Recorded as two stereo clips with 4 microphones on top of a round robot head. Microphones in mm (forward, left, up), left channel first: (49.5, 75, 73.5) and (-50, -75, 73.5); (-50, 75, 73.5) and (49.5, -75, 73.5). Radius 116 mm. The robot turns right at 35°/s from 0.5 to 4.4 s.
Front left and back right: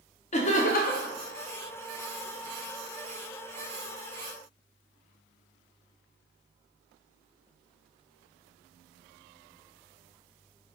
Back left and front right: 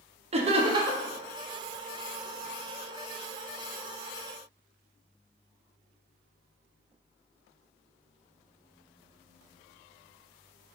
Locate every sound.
0.3 s laughter: straight ahead, 0.7 m; by 1.1 s 25° left, 0.7 m